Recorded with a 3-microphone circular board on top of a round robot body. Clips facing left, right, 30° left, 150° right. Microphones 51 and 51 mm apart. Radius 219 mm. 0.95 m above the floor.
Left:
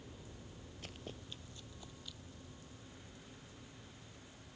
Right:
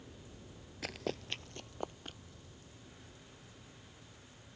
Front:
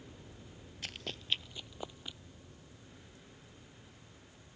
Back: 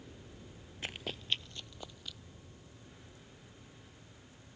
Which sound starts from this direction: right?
Running footsteps, at 0.8 s.